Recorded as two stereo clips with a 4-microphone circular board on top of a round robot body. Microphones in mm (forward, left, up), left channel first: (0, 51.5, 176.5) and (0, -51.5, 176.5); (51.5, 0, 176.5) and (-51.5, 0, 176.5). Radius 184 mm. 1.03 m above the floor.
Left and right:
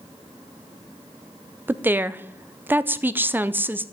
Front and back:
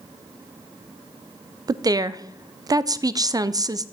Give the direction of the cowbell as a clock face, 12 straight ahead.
No cowbell in this recording.